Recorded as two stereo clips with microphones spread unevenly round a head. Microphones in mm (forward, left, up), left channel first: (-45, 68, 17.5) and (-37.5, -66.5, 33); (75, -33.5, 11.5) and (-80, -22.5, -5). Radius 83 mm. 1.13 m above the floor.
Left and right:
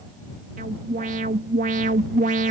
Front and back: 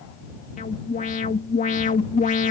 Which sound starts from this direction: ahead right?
An alarm, at 0.6 s.